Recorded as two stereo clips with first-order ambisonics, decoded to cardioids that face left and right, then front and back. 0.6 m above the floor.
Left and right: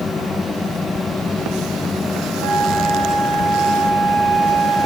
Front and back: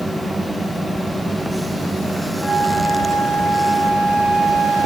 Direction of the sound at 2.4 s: 80° right.